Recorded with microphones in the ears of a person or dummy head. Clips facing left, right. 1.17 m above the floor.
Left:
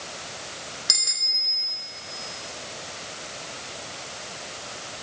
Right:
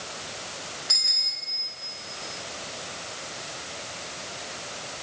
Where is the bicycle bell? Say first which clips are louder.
Left 2 dB; 55° left (ahead or behind), 2.5 m.